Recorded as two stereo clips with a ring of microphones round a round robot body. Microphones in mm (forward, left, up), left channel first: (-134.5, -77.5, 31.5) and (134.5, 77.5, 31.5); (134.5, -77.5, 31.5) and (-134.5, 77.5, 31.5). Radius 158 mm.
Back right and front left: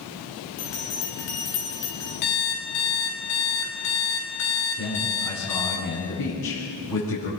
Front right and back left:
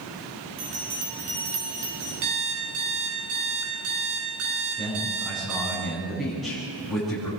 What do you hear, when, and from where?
0.6 s a bell: 160° left, 7 m
2.2 s an alarm clock: 160° right, 5.5 m
4.8 s a man speaking: 120° right, 8.5 m